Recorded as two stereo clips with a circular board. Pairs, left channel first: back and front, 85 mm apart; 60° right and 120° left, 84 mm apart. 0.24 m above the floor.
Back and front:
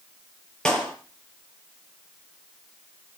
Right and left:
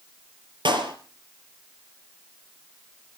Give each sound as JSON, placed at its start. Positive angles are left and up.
{"t": 0.7, "sound": "a clap", "azimuth_deg": 100, "distance_m": 4.5}